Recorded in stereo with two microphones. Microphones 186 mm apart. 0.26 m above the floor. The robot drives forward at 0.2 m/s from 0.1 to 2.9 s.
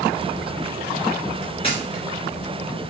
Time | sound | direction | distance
1.6 | a camera shutter | 30° left (ahead or behind) | 4 m